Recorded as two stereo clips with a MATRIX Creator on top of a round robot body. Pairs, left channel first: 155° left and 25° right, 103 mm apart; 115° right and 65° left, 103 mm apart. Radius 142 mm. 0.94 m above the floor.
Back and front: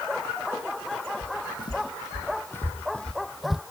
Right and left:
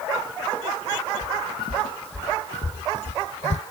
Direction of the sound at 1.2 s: 165° right.